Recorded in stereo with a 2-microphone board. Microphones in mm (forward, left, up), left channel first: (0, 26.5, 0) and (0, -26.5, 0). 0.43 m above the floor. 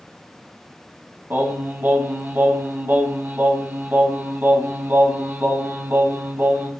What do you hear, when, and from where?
1.3 s singing: 45° right (ahead or behind), 2 m